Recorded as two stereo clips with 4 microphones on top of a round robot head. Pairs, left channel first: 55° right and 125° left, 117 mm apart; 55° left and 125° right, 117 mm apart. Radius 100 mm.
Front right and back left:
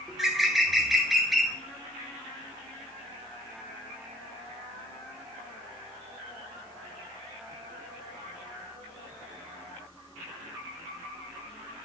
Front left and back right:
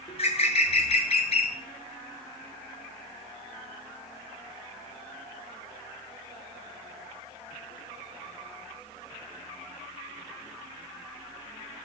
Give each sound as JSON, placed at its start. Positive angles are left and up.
{"t": 0.1, "sound": "a bird", "azimuth_deg": 35, "distance_m": 0.7}